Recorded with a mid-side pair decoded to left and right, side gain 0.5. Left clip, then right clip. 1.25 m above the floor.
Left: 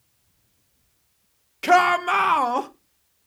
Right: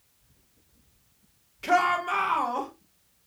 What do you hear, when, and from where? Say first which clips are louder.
1.6 s a shout: left 6 dB; 55° left, 1.4 m